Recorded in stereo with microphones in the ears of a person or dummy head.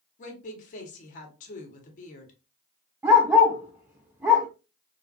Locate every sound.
0.2 s a woman speaking: 45° left (ahead or behind), 1.2 m
3.0 s a dog barking: 15° right (ahead or behind), 0.8 m